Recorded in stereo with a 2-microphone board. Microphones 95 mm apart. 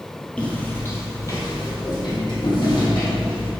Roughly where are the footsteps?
Centre.